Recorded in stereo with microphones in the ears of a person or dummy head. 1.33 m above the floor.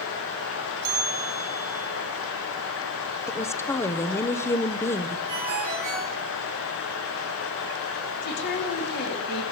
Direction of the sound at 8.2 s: 60° left (ahead or behind).